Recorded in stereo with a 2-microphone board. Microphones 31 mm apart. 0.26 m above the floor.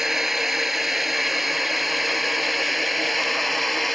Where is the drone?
10° right (ahead or behind); by 4.0 s 5° left (ahead or behind).